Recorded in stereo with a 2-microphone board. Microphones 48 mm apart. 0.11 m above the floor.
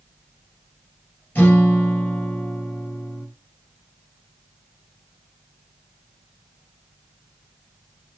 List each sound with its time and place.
1.4 s a guitar: 30° left (ahead or behind), 2.5 m